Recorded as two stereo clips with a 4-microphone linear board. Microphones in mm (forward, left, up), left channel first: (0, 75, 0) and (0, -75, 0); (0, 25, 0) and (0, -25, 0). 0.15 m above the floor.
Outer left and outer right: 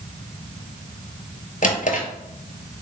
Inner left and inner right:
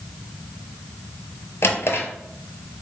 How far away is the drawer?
About 0.6 m.